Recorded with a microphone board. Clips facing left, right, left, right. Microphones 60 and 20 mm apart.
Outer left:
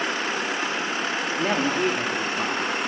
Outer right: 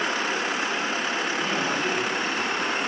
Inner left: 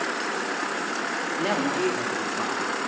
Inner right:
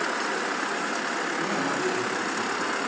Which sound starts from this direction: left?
A woman speaking, at 1.4 s.